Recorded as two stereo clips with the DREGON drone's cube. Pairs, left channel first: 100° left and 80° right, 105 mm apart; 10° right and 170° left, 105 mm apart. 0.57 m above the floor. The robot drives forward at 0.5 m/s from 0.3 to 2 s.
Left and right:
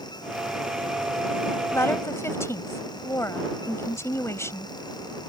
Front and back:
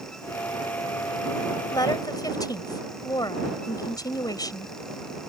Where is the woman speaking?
35° left; by 4.8 s 40° left.